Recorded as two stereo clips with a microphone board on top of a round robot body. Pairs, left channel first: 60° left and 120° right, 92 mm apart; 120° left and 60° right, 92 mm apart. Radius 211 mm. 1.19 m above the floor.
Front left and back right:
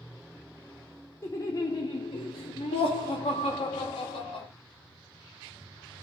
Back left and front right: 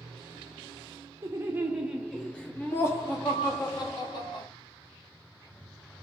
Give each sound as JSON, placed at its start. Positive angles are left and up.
{"t": 1.2, "sound": "laughter", "azimuth_deg": 0, "distance_m": 0.9}